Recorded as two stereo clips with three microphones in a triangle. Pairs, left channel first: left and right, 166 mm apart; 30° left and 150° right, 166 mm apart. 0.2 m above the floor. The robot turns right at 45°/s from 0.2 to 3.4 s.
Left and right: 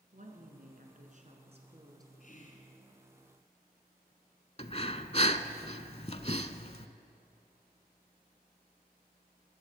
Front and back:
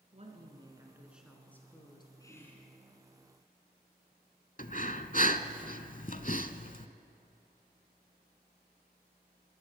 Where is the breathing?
50° left, 0.6 m.